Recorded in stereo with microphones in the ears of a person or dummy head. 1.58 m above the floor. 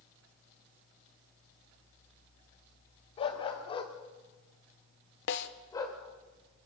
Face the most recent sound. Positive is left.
turn(degrees=65)  # may be behind; listen again after turning